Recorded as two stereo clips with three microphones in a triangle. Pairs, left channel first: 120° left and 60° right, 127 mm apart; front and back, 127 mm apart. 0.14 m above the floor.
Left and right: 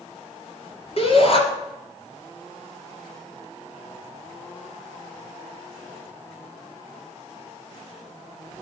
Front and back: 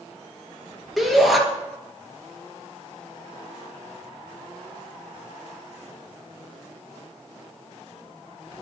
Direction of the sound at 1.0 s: 90° left.